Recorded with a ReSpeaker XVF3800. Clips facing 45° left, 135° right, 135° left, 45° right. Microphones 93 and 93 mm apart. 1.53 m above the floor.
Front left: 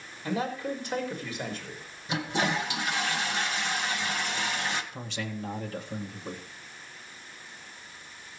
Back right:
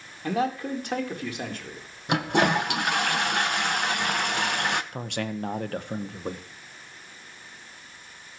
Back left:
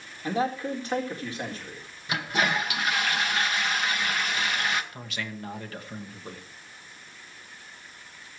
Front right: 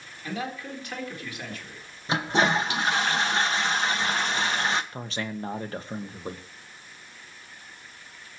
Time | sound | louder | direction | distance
0.2 | a man speaking | back right 4 dB, back left 6 dB | 165° right | 4 m
2.1 | a toilet flushing | back right 6 dB, front right 4 dB | 105° right | 1.3 m
4.9 | a man speaking | back right 5 dB, front right 4 dB | 105° right | 1.5 m